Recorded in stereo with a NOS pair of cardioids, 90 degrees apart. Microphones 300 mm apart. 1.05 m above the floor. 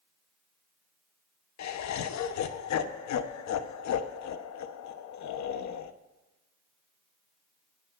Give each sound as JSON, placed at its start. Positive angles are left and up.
{"t": 1.6, "sound": "laughter", "azimuth_deg": 65, "distance_m": 1.1}